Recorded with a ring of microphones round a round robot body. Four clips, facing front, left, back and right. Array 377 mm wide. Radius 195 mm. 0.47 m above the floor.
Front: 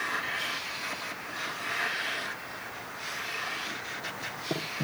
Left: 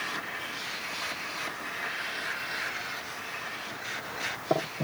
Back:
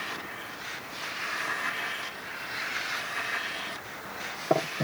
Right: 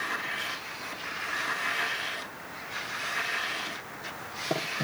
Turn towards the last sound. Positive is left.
No sound to turn to.